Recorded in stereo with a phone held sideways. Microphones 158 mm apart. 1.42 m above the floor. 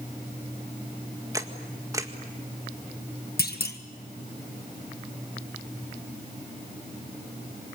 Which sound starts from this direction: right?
A camera shutter, at 1.3 s.